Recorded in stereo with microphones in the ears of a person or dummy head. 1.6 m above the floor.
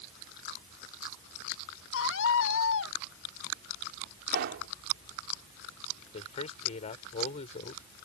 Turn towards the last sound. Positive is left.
turn(degrees=35)  # may be behind; listen again after turning